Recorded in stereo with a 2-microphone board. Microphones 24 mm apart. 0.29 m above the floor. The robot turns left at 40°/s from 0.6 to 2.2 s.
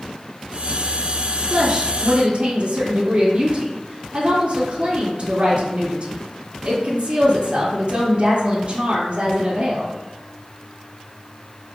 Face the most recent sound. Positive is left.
turn(degrees=-45)  # may be behind; listen again after turning